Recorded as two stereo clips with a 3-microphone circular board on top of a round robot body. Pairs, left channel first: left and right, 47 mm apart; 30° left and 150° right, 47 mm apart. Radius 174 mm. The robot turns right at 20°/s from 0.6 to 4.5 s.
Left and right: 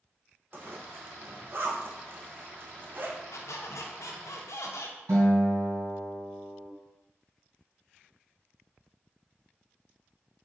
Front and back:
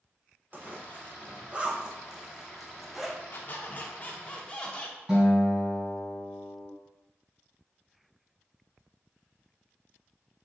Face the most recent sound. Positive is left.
turn(degrees=-70)